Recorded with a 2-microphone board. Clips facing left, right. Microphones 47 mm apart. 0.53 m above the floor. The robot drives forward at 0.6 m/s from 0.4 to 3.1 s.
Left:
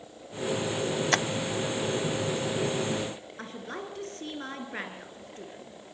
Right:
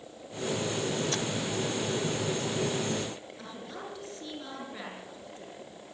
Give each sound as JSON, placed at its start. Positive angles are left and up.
{"t": 1.1, "sound": "tapping", "side_deg": 60, "distance_m": 0.6}
{"t": 3.4, "sound": "a woman speaking", "side_deg": 45, "distance_m": 7.0}